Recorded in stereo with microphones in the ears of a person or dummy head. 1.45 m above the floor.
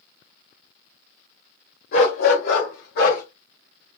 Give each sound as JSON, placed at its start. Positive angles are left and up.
{"t": 1.9, "sound": "a dog barking", "side_deg": 55, "distance_m": 2.0}